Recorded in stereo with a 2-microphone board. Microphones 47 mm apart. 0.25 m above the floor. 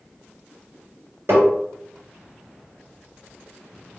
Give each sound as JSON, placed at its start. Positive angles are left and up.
{"t": 1.3, "sound": "tapping", "side_deg": -65, "distance_m": 1.9}